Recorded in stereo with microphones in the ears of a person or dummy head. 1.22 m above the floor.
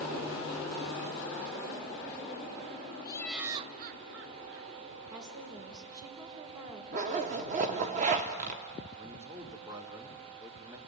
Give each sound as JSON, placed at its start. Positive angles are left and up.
{"t": 3.0, "sound": "laughter", "side_deg": 20, "distance_m": 0.8}
{"t": 5.1, "sound": "a woman speaking", "side_deg": -25, "distance_m": 3.5}
{"t": 6.9, "sound": "a zipper", "side_deg": -35, "distance_m": 0.9}
{"t": 9.0, "sound": "a man speaking", "side_deg": -20, "distance_m": 2.5}